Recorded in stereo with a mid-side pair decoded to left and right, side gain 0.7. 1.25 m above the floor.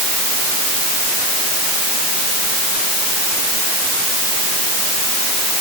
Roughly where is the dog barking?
I don't hear a dog barking.